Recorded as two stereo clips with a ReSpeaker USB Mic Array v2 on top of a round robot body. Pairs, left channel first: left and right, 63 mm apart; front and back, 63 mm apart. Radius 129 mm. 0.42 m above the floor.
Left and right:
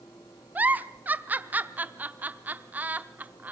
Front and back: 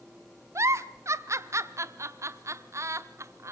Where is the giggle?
150° right, 0.7 m.